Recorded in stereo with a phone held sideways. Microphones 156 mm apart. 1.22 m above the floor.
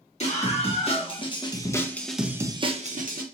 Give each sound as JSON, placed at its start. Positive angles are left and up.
{"t": 0.2, "sound": "a scream", "side_deg": 45, "distance_m": 1.8}